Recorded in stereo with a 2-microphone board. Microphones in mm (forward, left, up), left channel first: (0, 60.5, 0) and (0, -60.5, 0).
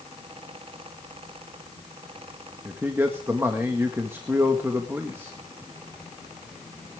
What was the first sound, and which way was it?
A man speaking, 20° right (ahead or behind).